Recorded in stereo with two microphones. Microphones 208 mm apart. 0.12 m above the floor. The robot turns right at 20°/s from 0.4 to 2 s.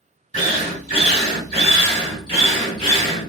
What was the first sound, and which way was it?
A drill, 100° left.